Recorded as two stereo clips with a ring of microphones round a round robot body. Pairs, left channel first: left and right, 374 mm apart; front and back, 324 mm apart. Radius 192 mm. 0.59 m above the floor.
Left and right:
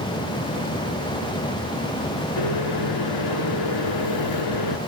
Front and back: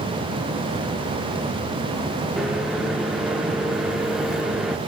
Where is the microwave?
90° left, 1.4 m.